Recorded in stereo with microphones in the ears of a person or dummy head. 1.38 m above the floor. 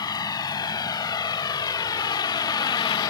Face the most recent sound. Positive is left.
turn(degrees=10)  # may be behind; listen again after turning